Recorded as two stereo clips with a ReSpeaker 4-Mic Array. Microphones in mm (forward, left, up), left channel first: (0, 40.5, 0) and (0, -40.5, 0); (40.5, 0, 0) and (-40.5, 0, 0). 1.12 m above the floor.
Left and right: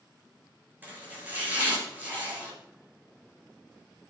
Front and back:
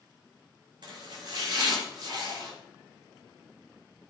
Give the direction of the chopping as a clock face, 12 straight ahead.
5 o'clock.